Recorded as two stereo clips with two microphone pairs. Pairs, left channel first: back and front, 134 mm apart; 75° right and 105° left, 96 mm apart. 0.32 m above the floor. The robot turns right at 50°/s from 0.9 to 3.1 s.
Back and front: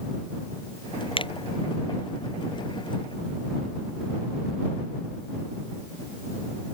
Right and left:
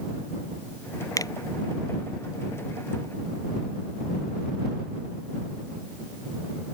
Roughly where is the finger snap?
Behind right.